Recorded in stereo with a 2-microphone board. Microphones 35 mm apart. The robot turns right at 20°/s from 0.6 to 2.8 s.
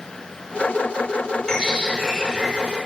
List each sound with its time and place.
1.5 s a bird: 20° left (ahead or behind), 0.7 m; by 2.8 s 15° left (ahead or behind), 0.7 m